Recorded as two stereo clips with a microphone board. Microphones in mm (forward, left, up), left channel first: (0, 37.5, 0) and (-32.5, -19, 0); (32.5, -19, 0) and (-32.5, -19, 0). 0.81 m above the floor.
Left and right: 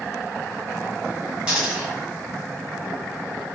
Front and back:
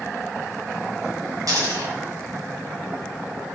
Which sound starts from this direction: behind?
A dropped coin, at 1.5 s.